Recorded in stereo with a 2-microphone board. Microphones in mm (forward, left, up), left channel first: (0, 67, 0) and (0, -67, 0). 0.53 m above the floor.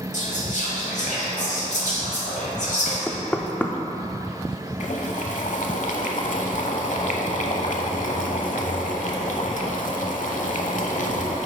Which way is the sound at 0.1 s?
70° left (ahead or behind).